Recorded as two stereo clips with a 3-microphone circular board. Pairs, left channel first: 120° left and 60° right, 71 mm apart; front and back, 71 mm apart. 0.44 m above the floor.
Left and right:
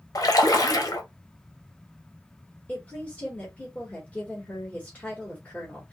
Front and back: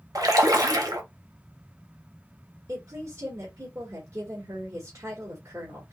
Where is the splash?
150° left, 1.1 m.